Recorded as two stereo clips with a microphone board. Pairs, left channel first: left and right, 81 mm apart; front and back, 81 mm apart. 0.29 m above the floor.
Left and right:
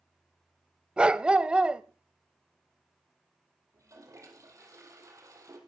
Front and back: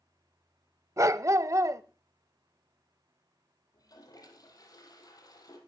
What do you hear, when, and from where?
1.0 s a dog barking: 160° right, 0.6 m
3.7 s a toilet flushing: 40° right, 3 m